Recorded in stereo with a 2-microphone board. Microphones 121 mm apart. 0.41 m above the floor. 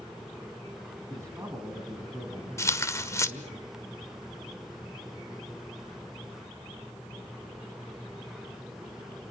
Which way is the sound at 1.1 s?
25° right (ahead or behind).